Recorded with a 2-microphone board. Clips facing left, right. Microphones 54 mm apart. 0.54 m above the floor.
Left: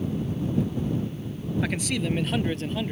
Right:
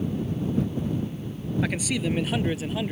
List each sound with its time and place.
1.6 s a man speaking: 5° right (ahead or behind); by 2.9 s 10° right (ahead or behind)